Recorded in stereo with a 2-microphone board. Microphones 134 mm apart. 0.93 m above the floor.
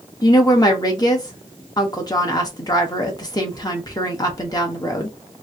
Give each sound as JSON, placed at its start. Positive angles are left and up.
{"t": 0.2, "sound": "a woman speaking", "side_deg": 30, "distance_m": 1.2}